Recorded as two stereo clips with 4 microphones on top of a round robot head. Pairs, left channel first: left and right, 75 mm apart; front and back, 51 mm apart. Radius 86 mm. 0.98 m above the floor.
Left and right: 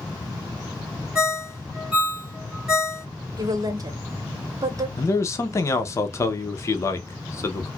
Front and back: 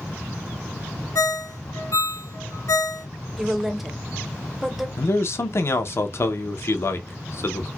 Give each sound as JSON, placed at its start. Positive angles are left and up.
{"t": 1.1, "sound": "a ringtone", "azimuth_deg": -10, "distance_m": 1.5}
{"t": 3.4, "sound": "a woman speaking", "azimuth_deg": -90, "distance_m": 1.0}
{"t": 5.0, "sound": "a man speaking", "azimuth_deg": 35, "distance_m": 0.6}